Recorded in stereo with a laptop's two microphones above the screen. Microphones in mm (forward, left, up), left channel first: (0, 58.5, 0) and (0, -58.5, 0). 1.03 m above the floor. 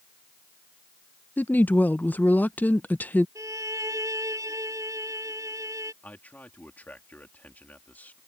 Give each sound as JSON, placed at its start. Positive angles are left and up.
{"t": 1.4, "sound": "a woman speaking", "side_deg": 15}
{"t": 3.4, "sound": "a violin", "side_deg": -25}
{"t": 6.0, "sound": "a man speaking", "side_deg": 15}